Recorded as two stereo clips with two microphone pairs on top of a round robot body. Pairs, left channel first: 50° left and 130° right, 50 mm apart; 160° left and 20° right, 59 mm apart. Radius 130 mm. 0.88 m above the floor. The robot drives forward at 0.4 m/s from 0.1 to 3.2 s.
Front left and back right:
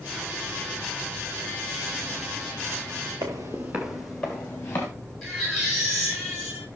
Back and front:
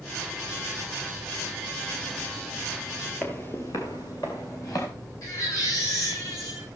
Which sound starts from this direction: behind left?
A baby crying, at 5.2 s.